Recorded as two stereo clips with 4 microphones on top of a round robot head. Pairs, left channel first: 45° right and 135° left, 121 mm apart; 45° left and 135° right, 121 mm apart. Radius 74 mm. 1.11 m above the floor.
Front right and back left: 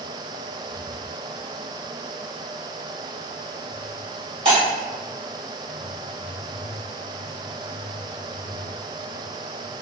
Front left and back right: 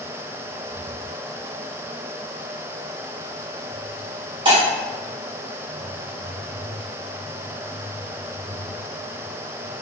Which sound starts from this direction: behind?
Breaking glass, at 4.5 s.